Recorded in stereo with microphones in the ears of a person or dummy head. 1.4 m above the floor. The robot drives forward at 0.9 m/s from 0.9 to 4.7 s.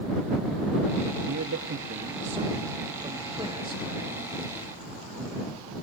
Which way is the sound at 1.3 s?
70° right (ahead or behind).